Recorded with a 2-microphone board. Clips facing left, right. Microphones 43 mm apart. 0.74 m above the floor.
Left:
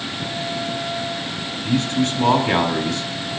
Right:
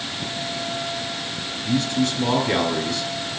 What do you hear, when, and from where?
1.6 s a man speaking: 55° left (ahead or behind), 3 m